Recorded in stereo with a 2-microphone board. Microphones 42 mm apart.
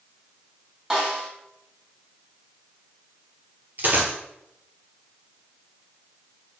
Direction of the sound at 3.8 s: 50° right (ahead or behind).